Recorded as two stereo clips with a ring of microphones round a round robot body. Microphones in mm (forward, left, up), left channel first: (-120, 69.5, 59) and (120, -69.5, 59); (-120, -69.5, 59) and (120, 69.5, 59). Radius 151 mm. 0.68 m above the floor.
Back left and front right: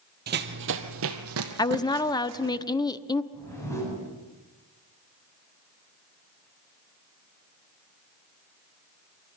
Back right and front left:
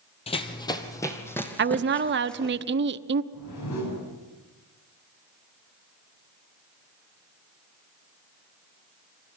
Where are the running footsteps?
80° right, 1.1 m; by 2.6 s 60° right, 2.5 m.